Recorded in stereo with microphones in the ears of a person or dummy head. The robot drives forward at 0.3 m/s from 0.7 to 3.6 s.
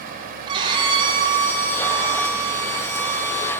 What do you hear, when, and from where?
0.5 s a violin: 30° right (ahead or behind), 2 m; by 3.5 s 45° right (ahead or behind), 1.6 m